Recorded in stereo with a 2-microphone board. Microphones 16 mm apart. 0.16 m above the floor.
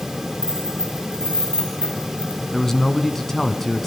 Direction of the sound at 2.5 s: 25° left (ahead or behind).